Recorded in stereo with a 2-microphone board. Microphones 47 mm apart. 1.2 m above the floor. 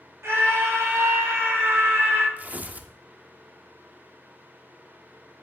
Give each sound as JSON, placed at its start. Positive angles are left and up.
{"t": 0.2, "sound": "a scream", "side_deg": -75, "distance_m": 4.5}
{"t": 2.4, "sound": "tearing paper", "side_deg": -30, "distance_m": 0.8}